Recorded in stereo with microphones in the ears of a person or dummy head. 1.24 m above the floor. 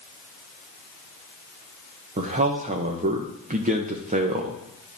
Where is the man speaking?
40° right (ahead or behind), 1.0 m.